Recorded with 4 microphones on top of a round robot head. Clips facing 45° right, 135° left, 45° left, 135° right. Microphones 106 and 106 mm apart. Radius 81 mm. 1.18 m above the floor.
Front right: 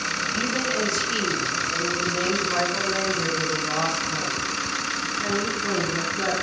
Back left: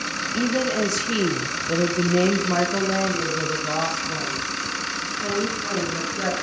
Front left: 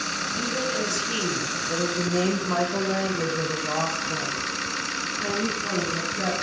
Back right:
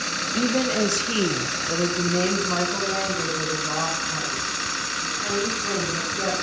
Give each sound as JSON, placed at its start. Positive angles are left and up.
{"t": 0.3, "sound": "a woman speaking", "azimuth_deg": -155, "distance_m": 0.8}